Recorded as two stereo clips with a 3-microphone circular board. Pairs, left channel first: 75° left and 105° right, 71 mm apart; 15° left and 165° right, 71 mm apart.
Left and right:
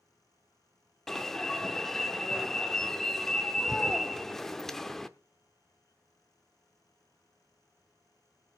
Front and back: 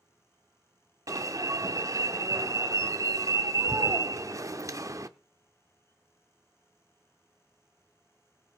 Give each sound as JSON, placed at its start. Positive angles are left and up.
{"t": 1.1, "sound": "an alarm", "azimuth_deg": 160, "distance_m": 0.7}